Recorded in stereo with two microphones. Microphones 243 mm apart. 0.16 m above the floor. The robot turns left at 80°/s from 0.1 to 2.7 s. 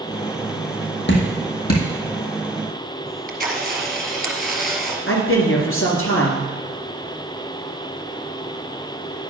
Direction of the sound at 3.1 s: 40° right (ahead or behind).